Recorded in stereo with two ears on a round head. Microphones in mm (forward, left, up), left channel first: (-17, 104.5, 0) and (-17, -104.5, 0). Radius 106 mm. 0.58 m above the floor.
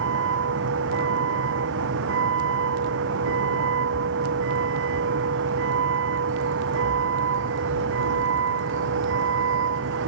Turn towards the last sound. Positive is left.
turn(degrees=-55)  # may be behind; listen again after turning